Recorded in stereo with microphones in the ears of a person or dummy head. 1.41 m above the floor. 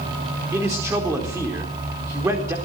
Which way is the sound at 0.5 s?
10° right (ahead or behind).